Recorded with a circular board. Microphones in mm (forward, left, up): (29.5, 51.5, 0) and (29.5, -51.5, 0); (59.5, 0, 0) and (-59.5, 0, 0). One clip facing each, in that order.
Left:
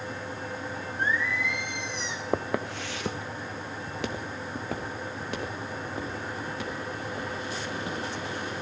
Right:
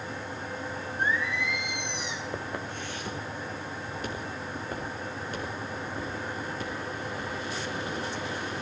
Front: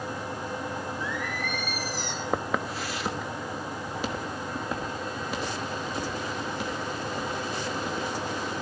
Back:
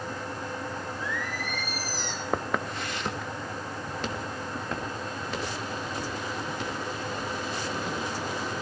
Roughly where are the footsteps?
Left.